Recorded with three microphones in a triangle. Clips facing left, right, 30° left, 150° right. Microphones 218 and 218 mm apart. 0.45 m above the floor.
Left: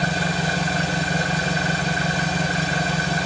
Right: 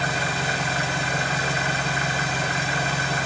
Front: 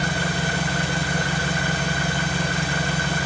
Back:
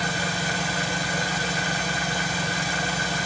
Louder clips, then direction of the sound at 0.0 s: Left 4 dB, front 3 dB; 40° left.